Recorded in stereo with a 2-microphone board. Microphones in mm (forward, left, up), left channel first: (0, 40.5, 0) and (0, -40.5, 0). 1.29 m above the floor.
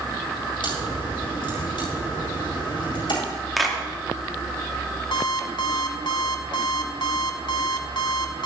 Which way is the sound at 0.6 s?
85° left.